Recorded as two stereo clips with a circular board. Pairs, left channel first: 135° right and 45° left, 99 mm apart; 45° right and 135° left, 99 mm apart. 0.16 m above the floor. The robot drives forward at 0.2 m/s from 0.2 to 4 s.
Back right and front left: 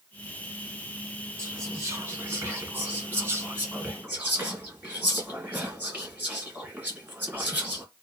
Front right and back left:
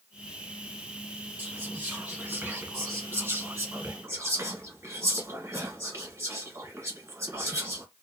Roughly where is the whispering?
Left.